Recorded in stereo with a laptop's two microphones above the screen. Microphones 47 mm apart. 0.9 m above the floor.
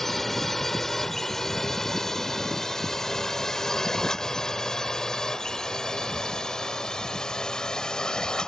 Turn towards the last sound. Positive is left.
turn(degrees=15)  # may be behind; listen again after turning